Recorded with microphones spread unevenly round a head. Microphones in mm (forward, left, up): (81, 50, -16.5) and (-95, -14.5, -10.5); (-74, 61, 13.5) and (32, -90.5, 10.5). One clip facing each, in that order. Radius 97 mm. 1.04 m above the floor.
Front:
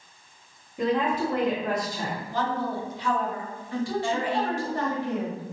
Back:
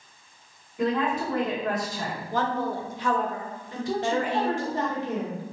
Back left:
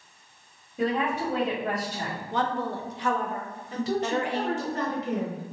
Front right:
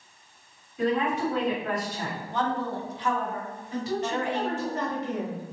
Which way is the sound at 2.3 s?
155° left.